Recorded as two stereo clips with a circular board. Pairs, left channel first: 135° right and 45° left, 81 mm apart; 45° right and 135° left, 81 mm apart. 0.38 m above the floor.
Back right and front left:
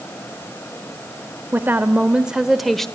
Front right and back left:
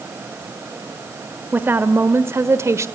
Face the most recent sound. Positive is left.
turn(degrees=145)